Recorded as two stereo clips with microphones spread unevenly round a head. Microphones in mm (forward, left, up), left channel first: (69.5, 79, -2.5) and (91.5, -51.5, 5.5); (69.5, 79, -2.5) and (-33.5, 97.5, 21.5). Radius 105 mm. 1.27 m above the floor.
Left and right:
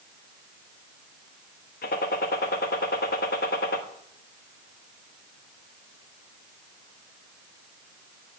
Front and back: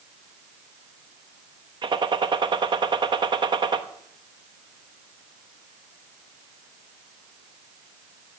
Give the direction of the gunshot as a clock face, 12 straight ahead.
8 o'clock.